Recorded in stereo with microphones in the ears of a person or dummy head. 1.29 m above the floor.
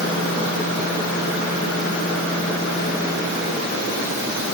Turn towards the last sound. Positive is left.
No sound to turn to.